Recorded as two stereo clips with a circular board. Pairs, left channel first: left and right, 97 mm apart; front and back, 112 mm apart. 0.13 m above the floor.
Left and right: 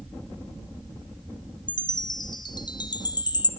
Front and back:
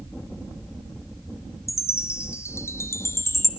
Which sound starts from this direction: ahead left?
A chime, at 1.7 s.